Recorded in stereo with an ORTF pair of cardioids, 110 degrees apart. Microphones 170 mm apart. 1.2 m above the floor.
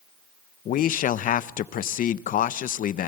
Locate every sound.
0.7 s a man speaking: 50° left, 0.6 m